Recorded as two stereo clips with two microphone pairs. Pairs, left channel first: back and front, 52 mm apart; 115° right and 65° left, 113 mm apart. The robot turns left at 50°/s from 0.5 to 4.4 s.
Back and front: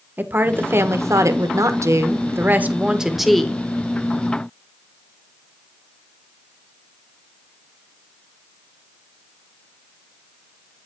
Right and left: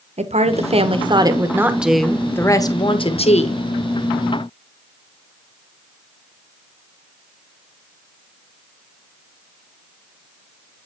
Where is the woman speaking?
45° left, 1.1 m; by 3.6 s 110° right, 1.1 m.